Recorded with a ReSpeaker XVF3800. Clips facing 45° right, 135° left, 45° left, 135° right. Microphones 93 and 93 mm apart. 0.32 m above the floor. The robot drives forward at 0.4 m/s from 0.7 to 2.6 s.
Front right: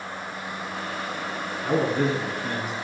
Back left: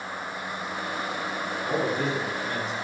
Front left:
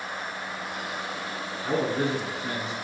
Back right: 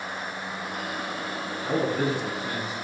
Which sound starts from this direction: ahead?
A man speaking, at 1.6 s.